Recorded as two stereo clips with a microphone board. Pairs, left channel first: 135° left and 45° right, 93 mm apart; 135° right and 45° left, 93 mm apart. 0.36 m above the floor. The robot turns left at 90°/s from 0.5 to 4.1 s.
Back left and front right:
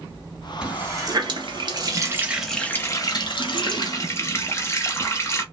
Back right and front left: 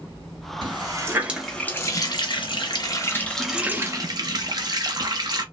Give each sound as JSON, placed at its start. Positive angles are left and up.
{"t": 0.6, "sound": "a running tap", "azimuth_deg": 30, "distance_m": 0.8}